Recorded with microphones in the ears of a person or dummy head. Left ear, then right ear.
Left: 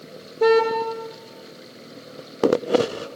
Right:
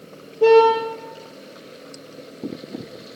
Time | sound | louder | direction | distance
0.4 | a car horn | right 5 dB | 50° left (ahead or behind) | 9.5 m